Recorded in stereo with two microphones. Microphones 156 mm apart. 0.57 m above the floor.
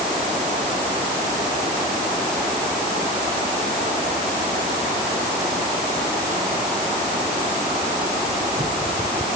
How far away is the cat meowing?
No cat meowing in this recording.